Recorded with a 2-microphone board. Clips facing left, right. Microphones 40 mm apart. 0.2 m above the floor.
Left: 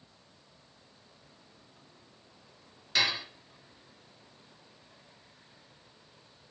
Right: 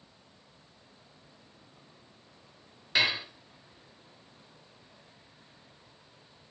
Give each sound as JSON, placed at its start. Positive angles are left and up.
{"t": 3.0, "sound": "dishes clattering", "side_deg": -15, "distance_m": 2.5}